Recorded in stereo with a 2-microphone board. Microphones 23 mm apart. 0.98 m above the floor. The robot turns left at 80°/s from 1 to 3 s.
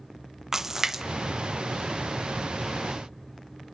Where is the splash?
20° right (ahead or behind), 0.6 m; by 1.0 s 15° right (ahead or behind), 0.6 m.